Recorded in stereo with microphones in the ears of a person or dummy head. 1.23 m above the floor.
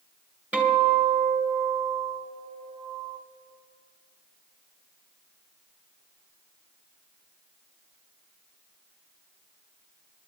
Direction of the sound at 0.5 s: 5° right (ahead or behind).